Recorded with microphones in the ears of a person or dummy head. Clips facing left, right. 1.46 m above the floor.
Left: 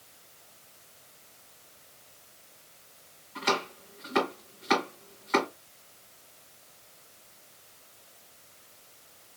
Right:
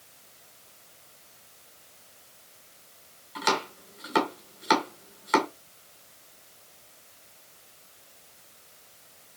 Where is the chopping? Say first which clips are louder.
Right 1 dB; 45° right (ahead or behind), 1.5 m.